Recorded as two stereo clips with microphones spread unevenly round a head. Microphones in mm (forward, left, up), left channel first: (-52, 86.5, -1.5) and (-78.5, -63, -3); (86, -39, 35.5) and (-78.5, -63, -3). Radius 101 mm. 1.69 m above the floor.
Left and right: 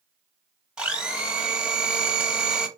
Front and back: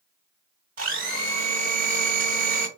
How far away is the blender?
About 1.8 m.